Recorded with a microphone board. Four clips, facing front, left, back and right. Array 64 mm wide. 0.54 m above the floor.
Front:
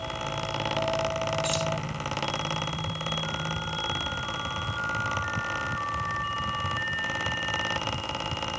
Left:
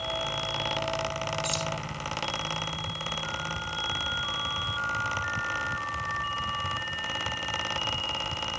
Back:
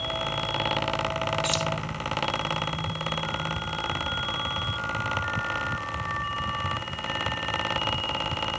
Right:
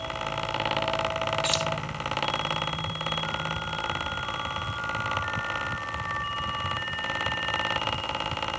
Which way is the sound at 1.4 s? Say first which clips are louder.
Right 4 dB, back 1 dB; 100° right.